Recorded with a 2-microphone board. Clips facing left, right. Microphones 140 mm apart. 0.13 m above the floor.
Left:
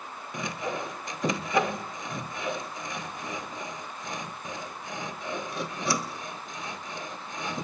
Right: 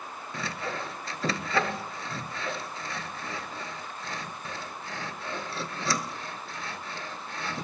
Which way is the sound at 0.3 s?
15° left (ahead or behind).